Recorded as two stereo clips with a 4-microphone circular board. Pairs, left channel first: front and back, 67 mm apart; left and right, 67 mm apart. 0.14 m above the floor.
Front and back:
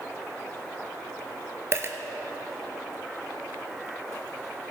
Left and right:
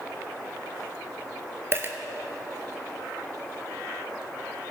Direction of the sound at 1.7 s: 135° right.